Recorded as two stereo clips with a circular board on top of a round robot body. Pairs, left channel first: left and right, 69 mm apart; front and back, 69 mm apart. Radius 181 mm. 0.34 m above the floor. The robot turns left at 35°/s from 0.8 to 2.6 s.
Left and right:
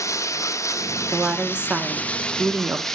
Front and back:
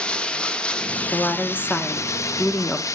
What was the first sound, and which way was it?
Running water, 70° left.